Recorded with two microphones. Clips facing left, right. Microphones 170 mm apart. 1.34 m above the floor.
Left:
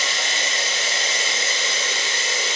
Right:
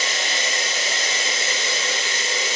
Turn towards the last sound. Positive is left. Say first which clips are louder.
# right 1 dB
turn(degrees=-45)  # may be behind; listen again after turning